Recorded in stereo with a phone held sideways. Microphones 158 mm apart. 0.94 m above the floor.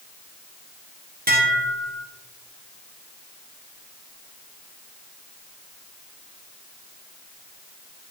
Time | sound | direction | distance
1.3 | dishes clattering | 65° right (ahead or behind) | 1.7 m